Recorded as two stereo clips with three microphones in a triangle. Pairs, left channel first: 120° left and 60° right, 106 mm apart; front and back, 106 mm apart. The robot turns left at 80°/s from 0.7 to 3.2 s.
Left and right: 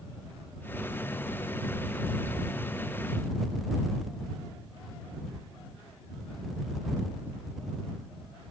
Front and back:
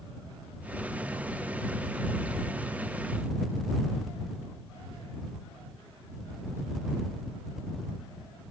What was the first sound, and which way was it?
Only background noise.